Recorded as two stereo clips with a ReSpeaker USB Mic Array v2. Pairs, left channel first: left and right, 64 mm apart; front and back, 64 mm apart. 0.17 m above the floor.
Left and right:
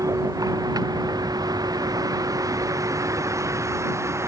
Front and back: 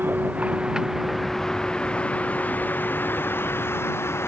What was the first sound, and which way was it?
A vehicle, 120° right.